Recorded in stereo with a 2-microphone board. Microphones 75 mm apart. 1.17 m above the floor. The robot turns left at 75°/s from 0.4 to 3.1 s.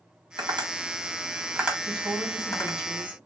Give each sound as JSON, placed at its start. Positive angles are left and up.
{"t": 0.4, "sound": "tapping", "side_deg": -65, "distance_m": 1.6}
{"t": 1.9, "sound": "a woman speaking", "azimuth_deg": -110, "distance_m": 3.0}